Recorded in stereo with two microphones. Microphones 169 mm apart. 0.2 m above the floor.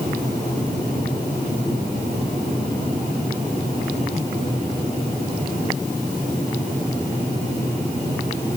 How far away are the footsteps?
I don't hear footsteps.